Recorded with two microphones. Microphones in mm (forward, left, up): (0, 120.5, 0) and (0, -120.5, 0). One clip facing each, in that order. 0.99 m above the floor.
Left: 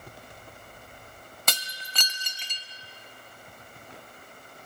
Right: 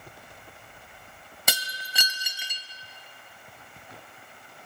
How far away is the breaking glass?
About 0.6 m.